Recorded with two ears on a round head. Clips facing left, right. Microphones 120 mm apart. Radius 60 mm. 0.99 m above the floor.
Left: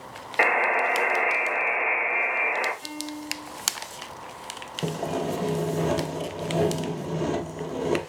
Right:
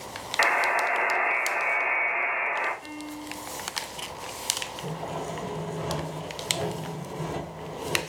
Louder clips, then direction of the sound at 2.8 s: Left 2 dB; 55° left (ahead or behind).